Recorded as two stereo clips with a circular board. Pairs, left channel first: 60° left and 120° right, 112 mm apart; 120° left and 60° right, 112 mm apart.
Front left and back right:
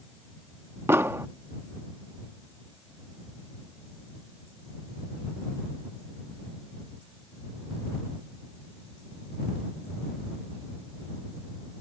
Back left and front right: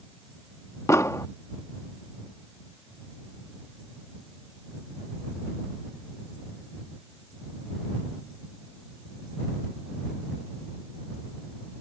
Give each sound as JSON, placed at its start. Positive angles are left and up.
{"t": 0.9, "sound": "an explosion", "azimuth_deg": 175}